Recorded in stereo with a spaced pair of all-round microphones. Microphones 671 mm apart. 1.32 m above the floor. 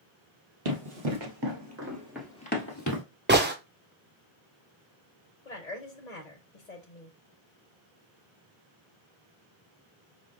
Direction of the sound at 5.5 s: 80° left.